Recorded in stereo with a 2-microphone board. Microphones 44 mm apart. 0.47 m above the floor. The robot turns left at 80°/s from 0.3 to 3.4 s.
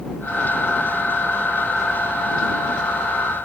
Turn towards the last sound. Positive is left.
No sound to turn to.